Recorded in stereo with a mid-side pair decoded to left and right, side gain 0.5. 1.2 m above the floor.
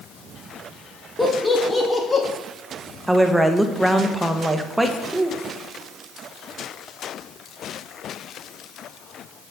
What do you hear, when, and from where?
1.2 s laughter: 10° left, 2.0 m; by 2.2 s 30° left, 2.5 m
3.1 s a woman speaking: 10° right, 1.0 m